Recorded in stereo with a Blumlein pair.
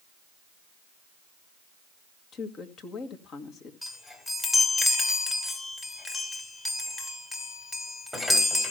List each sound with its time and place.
2.3 s a woman speaking: 30° left, 2.5 m
3.8 s a chime: 5° left, 3 m